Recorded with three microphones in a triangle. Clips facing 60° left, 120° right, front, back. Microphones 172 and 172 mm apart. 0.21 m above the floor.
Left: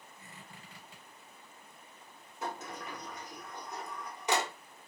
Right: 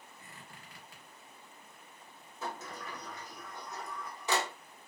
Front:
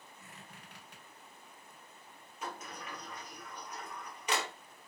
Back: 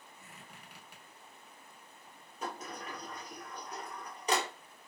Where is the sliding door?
130° left, 0.9 m.